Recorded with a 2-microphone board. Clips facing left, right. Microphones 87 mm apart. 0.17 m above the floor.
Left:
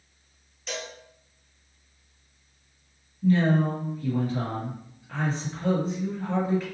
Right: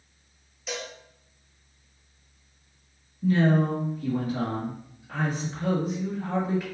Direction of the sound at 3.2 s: 15° right (ahead or behind).